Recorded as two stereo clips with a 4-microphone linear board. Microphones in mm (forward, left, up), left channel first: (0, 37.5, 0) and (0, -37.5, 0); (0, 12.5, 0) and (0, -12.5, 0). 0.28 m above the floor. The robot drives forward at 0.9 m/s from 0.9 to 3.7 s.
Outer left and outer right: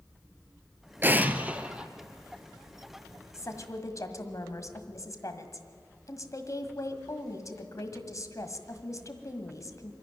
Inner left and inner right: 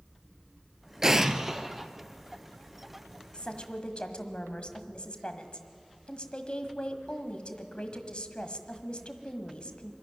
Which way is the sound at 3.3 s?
45° left (ahead or behind).